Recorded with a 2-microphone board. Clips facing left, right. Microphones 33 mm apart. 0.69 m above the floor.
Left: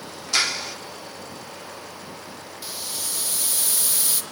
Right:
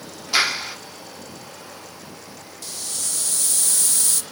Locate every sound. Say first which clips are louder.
0.3 s a clap: right 3 dB; 20° right (ahead or behind), 1.4 m
2.6 s a hiss: even; 15° left (ahead or behind), 0.8 m